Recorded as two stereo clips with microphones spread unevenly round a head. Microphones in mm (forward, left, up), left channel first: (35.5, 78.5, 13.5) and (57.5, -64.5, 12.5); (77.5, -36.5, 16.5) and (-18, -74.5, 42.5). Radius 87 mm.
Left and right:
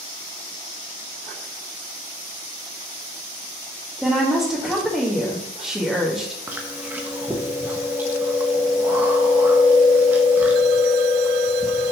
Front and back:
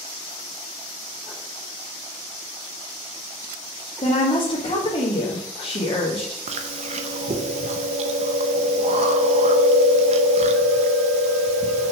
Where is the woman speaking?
5° left, 1.5 m.